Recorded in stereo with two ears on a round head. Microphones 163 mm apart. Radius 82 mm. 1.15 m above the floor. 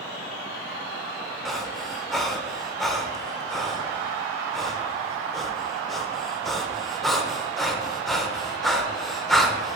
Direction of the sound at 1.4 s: Centre (ahead or behind).